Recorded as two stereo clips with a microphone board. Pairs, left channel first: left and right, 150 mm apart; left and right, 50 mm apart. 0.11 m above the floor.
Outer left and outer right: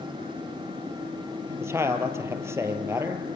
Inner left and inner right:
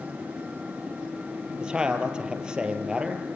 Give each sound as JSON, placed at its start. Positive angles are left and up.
{"t": 1.6, "sound": "a man speaking", "side_deg": -15, "distance_m": 3.0}